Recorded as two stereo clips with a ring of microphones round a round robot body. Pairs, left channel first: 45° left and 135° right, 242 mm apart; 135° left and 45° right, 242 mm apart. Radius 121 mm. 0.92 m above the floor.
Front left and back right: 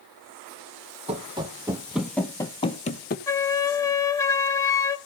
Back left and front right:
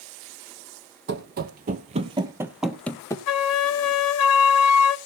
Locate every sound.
1.1 s running footsteps: 75° right, 1.3 m; by 3.2 s 65° left, 1.1 m
3.3 s a flute: 125° left, 0.6 m